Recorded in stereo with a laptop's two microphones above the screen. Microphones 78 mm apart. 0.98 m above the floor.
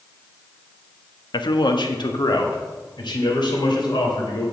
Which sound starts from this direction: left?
A man speaking, at 1.3 s.